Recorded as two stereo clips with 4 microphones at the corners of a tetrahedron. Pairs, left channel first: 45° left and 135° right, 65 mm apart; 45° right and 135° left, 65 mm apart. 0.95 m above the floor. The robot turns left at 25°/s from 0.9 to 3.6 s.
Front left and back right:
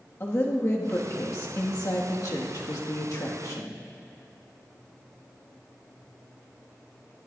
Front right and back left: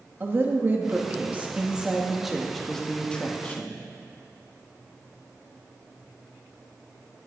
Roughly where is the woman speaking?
Left.